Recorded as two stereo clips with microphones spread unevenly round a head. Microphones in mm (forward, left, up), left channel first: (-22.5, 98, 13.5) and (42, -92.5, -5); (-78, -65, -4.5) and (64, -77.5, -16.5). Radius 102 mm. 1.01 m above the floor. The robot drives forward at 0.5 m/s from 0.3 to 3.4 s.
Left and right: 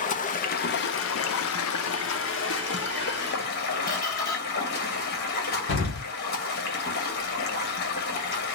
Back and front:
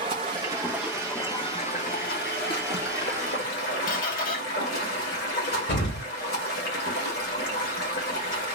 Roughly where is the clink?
I don't hear a clink.